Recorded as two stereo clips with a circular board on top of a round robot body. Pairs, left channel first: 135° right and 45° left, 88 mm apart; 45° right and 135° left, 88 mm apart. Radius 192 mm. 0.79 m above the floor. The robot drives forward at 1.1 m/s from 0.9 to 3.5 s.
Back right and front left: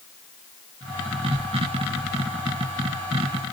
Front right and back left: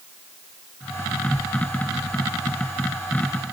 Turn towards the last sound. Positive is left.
No sound to turn to.